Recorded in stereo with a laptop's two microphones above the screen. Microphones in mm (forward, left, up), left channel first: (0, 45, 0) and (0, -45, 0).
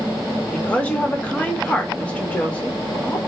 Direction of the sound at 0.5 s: 15° left (ahead or behind).